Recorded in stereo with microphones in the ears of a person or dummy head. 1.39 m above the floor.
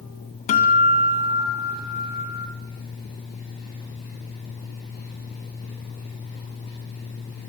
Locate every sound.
0.5 s a guitar: 40° left (ahead or behind), 2 m